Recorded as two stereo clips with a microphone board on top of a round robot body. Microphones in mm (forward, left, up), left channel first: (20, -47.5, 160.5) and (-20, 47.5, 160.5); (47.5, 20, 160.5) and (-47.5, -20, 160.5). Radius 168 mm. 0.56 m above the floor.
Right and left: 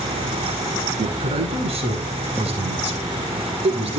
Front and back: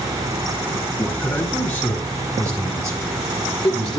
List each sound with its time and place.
1.0 s a man speaking: 100° left, 8 m; by 4.0 s 105° left, 7 m